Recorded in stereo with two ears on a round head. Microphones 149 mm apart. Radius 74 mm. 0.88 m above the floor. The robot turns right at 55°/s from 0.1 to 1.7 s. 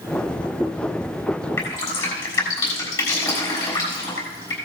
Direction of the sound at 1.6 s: 20° left (ahead or behind).